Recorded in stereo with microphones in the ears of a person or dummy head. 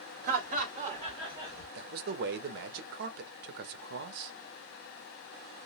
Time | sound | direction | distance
0.2 | laughter | 50° right (ahead or behind) | 1.5 m
1.8 | a man speaking | 55° right (ahead or behind) | 0.7 m